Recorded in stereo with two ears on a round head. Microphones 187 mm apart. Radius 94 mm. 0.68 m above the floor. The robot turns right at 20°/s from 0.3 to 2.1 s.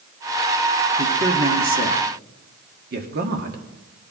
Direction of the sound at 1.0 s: 40° right (ahead or behind).